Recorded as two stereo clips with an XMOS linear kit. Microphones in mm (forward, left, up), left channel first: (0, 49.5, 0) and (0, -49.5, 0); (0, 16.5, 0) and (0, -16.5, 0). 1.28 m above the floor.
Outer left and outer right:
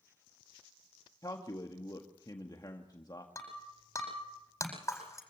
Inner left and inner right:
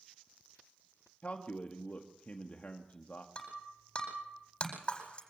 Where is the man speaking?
40° left (ahead or behind), 1.7 m.